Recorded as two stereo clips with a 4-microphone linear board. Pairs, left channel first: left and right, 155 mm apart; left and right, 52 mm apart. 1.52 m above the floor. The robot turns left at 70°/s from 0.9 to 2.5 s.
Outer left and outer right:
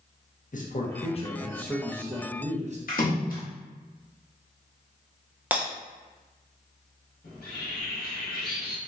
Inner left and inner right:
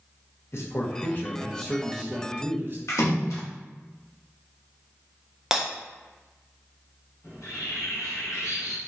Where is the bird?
80° left, 0.9 m.